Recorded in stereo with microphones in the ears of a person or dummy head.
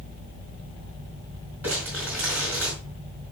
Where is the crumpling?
10° right (ahead or behind), 4.5 m.